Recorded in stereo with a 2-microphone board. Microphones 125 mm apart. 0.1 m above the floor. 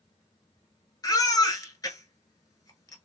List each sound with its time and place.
1.0 s a baby crying: 30° left (ahead or behind), 0.8 m